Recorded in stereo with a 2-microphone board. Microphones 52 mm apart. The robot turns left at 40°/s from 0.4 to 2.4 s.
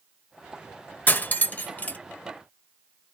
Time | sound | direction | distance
1.1 | cutlery clinking | 35° left (ahead or behind) | 0.5 m